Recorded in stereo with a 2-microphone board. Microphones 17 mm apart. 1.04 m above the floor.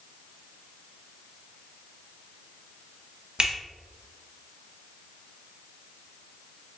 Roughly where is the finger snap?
Right.